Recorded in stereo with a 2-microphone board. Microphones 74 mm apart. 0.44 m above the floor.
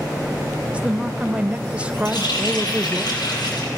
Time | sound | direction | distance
0.7 | a woman speaking | 15° right (ahead or behind) | 1.1 m
2.0 | a running tap | 80° left | 9.5 m